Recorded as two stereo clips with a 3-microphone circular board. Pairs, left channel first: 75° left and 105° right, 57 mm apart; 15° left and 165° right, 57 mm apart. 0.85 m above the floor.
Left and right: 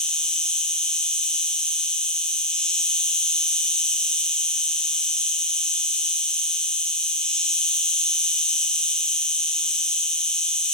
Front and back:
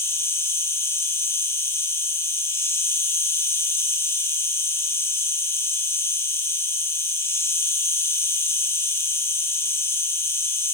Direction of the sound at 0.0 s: 5° left.